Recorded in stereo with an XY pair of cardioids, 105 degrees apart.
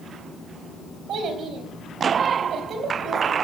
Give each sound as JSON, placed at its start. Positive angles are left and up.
{"t": 1.1, "sound": "a child speaking", "azimuth_deg": -70, "distance_m": 4.0}